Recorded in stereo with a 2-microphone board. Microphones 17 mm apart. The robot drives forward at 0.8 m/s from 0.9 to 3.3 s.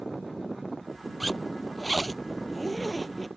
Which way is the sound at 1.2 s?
Centre (ahead or behind).